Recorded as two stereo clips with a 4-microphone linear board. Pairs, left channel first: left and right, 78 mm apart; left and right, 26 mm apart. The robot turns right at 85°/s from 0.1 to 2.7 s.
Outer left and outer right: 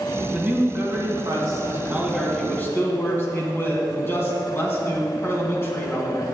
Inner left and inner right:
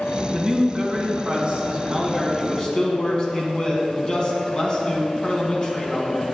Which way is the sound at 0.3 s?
165° right.